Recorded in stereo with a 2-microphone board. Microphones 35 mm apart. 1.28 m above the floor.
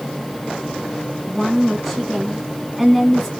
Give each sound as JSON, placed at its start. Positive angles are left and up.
{"t": 1.3, "sound": "a woman speaking", "side_deg": -5, "distance_m": 1.3}